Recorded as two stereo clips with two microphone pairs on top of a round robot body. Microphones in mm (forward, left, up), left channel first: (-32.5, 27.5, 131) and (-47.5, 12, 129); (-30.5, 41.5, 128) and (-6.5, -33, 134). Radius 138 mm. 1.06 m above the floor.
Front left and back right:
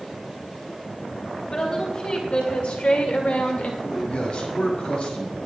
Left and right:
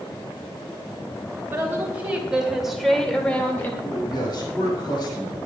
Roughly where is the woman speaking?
Ahead.